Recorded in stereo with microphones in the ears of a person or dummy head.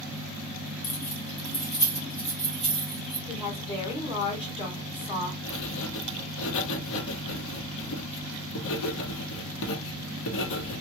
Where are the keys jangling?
45° left (ahead or behind), 0.8 m; by 3.2 s 10° right (ahead or behind), 1.6 m.